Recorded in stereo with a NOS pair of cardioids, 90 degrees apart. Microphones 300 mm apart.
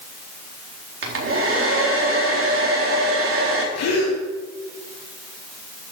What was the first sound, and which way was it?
A hair dryer, 45° right.